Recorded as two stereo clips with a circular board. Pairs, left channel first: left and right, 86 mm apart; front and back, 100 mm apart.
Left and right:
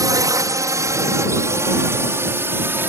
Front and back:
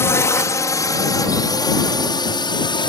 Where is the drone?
55° right; by 2.9 s 25° right.